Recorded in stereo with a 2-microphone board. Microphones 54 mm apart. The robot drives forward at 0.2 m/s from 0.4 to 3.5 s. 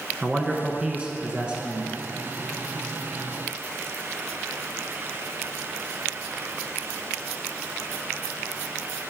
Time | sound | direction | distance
0.2 | a man speaking | 20° right (ahead or behind) | 1.1 m